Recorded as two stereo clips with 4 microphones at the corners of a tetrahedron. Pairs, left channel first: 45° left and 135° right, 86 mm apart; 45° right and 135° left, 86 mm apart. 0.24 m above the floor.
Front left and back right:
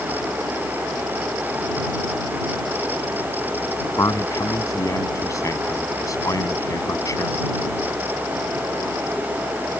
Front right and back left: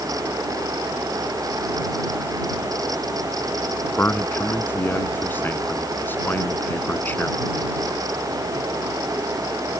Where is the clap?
No clap in this recording.